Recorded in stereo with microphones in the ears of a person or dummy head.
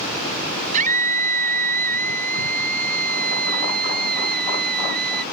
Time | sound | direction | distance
0.7 | a scream | 45° right (ahead or behind) | ?